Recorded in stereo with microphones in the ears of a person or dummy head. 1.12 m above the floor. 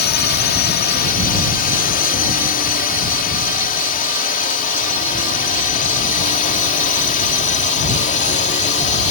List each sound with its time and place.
0.0 s a drone: 40° left (ahead or behind); by 9.1 s 30° left (ahead or behind)